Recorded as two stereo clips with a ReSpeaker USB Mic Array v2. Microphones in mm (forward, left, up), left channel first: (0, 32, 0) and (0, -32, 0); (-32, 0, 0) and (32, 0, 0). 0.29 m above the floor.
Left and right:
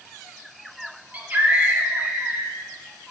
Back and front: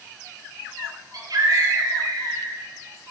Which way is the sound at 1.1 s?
25° right.